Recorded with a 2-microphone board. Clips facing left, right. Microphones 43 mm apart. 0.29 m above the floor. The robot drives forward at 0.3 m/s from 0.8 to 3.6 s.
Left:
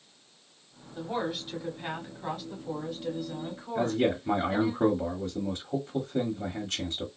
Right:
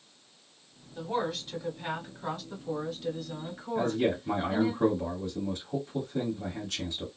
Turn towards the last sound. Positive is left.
turn(degrees=45)  # may be behind; listen again after turning